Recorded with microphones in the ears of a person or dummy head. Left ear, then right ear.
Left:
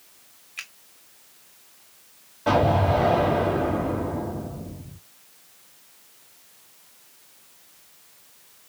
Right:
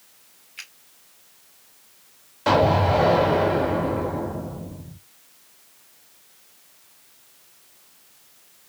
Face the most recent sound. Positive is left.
turn(degrees=-90)